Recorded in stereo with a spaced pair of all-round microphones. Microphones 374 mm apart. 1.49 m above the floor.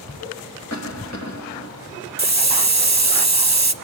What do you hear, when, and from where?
0.7 s a cough: 45° left (ahead or behind), 2.5 m
2.2 s a hiss: 45° right (ahead or behind), 0.9 m